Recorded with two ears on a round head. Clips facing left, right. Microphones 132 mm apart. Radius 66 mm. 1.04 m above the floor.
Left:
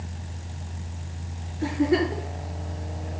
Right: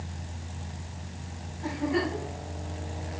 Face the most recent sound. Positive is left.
turn(degrees=85)